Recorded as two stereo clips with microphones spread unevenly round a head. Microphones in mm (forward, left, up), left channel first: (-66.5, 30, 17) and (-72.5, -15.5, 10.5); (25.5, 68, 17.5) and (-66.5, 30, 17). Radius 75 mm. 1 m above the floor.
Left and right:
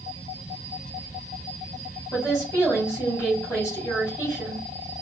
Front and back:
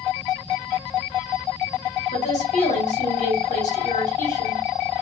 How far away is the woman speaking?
About 3 m.